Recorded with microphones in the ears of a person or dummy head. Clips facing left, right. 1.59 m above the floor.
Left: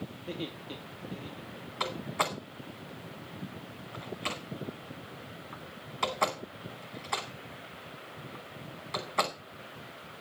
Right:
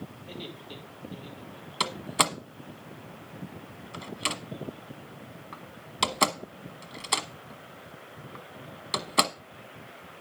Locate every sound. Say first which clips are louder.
0.2 s laughter: left 3 dB; 40° left (ahead or behind), 3 m
1.8 s a door slam: right 3 dB; 45° right (ahead or behind), 1.0 m